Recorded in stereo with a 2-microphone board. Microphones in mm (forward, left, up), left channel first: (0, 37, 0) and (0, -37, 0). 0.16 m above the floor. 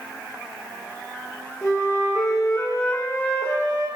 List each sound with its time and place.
1.6 s a flute: 35° left (ahead or behind), 2.5 m